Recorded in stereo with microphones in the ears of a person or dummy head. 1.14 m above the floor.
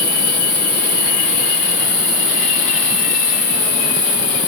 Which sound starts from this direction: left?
An insect, at 0.0 s.